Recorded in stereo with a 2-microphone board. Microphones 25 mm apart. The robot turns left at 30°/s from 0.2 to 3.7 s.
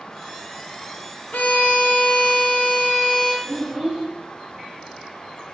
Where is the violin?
110° left, 0.6 m; by 3.3 s 50° left, 0.6 m.